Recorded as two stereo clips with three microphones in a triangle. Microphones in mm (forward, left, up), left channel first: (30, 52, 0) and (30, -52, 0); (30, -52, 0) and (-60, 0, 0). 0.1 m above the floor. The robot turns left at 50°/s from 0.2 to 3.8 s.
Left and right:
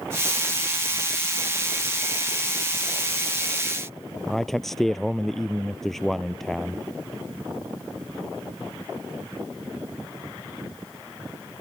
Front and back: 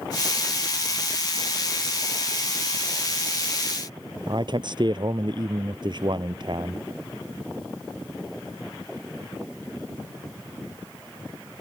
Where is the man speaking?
175° left.